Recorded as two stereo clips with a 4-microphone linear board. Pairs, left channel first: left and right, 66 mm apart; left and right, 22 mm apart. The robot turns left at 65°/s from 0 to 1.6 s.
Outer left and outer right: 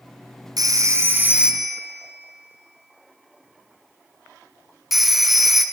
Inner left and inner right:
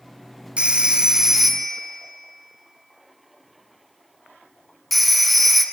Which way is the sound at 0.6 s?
70° right (ahead or behind).